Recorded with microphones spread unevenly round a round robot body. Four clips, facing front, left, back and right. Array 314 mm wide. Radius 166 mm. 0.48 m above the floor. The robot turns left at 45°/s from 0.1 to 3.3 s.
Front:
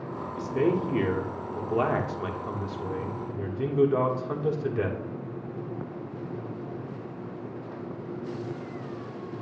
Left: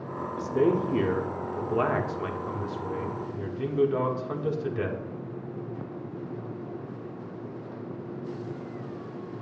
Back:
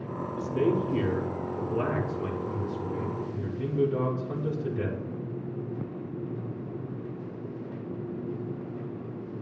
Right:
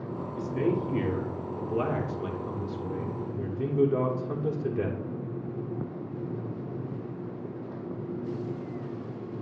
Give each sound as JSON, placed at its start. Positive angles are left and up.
{"t": 0.2, "sound": "a man speaking", "azimuth_deg": 80, "distance_m": 1.4}